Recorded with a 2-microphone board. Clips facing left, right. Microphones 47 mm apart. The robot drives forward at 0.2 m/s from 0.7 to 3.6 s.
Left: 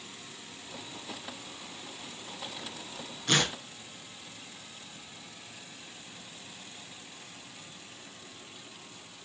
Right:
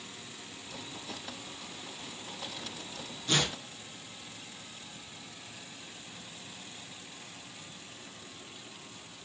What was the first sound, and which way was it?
Tearing paper, 65° left (ahead or behind).